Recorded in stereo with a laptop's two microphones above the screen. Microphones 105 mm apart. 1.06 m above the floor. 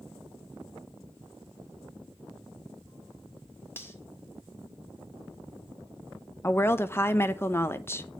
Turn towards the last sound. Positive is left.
turn(degrees=20)  # may be behind; listen again after turning